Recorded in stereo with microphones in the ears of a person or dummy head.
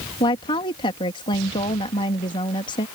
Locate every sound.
0.2 s a woman speaking: 30° left (ahead or behind)